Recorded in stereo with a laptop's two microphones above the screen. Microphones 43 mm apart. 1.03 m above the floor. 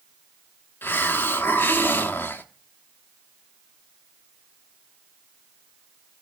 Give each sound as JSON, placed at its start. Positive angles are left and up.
{"t": 0.8, "sound": "a hiss", "side_deg": 55, "distance_m": 1.0}